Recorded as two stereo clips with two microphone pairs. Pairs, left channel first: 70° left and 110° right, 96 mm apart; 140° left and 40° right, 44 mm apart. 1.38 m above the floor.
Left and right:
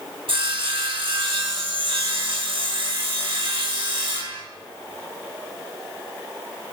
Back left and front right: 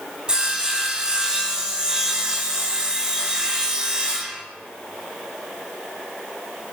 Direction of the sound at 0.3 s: 110° right.